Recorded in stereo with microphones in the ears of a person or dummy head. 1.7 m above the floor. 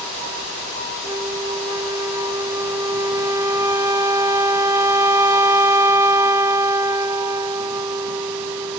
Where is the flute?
15° right (ahead or behind).